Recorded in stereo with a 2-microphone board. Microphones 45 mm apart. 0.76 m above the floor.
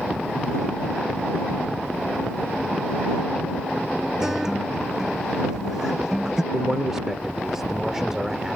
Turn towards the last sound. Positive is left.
turn(degrees=-10)  # may be behind; listen again after turning